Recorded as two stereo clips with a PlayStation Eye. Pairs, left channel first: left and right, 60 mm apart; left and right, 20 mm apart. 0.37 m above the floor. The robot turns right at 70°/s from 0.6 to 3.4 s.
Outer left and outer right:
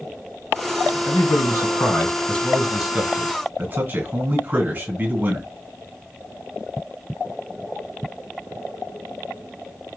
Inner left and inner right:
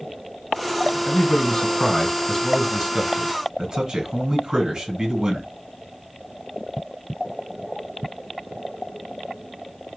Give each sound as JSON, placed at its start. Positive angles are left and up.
{"t": 1.1, "sound": "a man speaking", "azimuth_deg": 60, "distance_m": 2.5}